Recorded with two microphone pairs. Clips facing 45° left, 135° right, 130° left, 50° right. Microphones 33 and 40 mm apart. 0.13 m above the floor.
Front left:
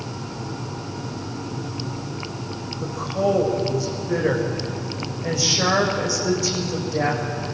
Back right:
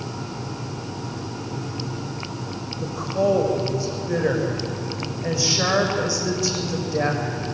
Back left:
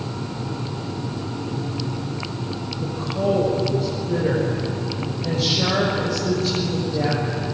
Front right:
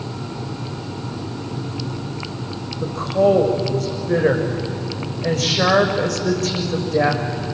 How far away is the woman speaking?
About 6.5 m.